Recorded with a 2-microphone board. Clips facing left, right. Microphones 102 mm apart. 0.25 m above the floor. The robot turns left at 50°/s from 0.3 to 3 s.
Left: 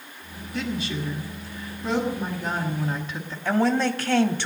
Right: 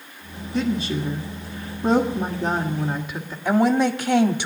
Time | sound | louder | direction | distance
0.5 | a woman speaking | right 6 dB | 40° right | 1.4 m
3.5 | a woman speaking | right 3 dB | 15° right (ahead or behind) | 1.0 m